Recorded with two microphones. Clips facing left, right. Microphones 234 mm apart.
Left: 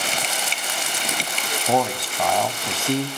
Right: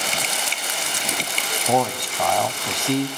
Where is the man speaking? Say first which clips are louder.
Even; 5° left (ahead or behind), 1.0 m.